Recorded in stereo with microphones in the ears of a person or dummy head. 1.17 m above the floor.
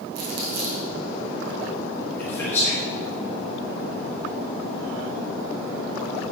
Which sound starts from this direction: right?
Crumpling, at 0.1 s.